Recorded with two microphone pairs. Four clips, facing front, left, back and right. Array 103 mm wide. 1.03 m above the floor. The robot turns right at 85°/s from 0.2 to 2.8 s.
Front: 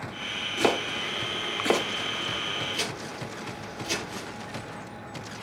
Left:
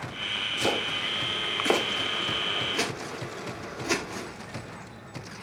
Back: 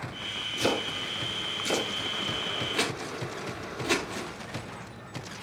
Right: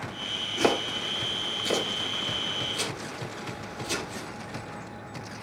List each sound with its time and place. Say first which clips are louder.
0.6 s chopping: right 4 dB, front 3 dB; 55° right, 2 m; by 4.3 s 135° left, 2 m